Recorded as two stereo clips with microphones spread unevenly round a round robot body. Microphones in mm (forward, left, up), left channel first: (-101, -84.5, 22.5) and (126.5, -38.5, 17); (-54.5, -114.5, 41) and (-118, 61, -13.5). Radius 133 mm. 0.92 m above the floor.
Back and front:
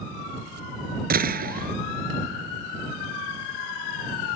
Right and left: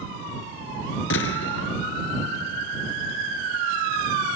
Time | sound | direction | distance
1.1 | a gunshot | 40° right | ?